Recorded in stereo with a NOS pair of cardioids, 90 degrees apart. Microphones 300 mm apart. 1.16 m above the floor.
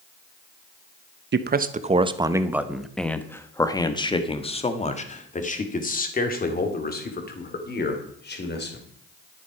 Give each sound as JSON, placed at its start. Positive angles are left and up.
{"t": 1.3, "sound": "a man speaking", "azimuth_deg": -35, "distance_m": 1.0}